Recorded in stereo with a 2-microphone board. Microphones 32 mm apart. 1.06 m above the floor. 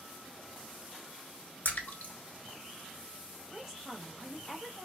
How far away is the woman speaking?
About 1.2 m.